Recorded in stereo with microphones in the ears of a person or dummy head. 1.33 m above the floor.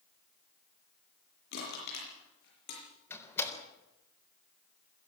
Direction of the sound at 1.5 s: 65° left (ahead or behind).